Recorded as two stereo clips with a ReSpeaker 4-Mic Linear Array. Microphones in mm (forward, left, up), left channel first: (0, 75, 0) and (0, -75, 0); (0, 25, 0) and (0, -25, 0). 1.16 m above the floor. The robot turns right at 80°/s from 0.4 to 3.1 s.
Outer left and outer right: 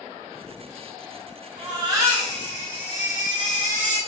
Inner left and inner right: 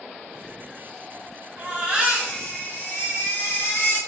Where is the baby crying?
55° right, 1.1 m; by 4.0 s 65° left, 1.1 m.